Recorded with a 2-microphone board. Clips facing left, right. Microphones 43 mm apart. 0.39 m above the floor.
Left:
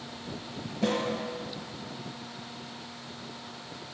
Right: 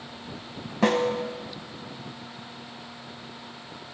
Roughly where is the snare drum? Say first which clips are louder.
Right 6 dB; right.